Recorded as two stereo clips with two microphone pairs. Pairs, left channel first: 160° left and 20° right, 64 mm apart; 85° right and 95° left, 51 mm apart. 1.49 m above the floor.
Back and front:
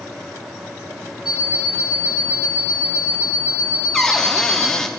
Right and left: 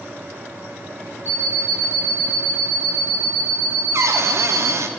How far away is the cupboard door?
About 0.7 m.